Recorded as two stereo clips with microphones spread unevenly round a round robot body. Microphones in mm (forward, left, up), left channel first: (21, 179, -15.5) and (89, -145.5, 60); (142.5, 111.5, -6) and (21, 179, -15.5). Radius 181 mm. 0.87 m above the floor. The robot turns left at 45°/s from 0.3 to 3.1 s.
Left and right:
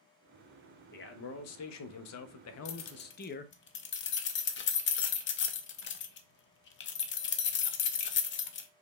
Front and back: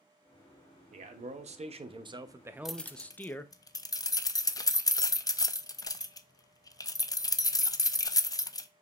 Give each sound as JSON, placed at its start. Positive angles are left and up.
{"t": 0.9, "sound": "a man speaking", "azimuth_deg": 150, "distance_m": 0.5}
{"t": 2.6, "sound": "keys jangling", "azimuth_deg": 65, "distance_m": 0.5}